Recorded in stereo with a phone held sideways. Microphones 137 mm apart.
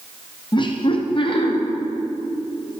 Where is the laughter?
35° left (ahead or behind), 0.6 m; by 1.6 s 40° left (ahead or behind), 1.0 m.